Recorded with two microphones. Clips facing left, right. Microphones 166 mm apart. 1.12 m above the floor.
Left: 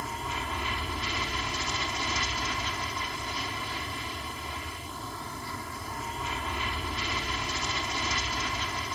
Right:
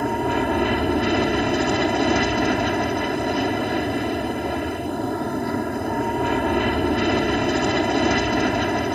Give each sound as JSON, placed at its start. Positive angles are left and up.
{"t": 0.0, "sound": "an aircraft", "side_deg": -65}